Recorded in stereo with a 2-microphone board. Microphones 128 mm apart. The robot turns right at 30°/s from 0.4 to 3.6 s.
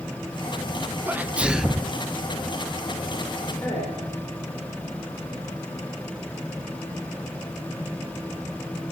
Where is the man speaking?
25° left (ahead or behind), 4.5 m.